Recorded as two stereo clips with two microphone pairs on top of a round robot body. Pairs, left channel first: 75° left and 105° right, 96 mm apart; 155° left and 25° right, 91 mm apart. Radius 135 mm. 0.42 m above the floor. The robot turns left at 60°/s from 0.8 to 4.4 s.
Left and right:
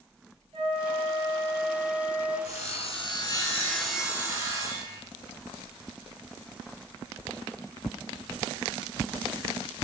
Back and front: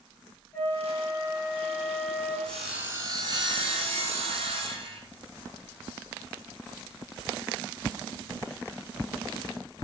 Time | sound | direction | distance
0.5 | a flute | 135° right | 3.5 m
2.5 | sawing | 75° left | 2.5 m